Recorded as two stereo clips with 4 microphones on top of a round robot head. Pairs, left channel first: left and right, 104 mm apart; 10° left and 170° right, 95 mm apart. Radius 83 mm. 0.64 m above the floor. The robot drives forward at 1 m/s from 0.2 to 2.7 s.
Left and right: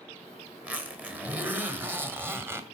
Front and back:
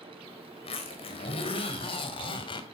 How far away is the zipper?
About 4 m.